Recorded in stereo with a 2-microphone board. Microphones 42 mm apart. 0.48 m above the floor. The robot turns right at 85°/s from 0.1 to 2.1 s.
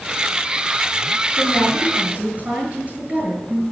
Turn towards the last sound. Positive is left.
turn(degrees=-145)